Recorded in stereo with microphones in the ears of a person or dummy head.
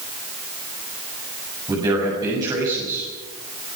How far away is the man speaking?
About 8 m.